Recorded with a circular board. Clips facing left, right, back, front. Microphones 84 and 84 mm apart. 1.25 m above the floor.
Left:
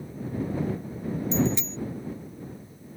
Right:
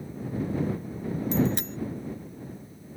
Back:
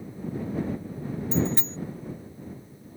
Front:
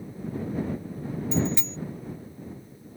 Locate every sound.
1.3 s a bicycle bell: 130° right